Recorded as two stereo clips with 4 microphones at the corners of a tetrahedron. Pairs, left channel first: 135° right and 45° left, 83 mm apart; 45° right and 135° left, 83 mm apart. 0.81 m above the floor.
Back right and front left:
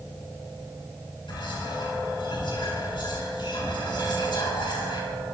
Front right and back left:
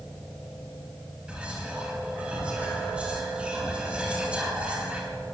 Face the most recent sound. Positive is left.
turn(degrees=-150)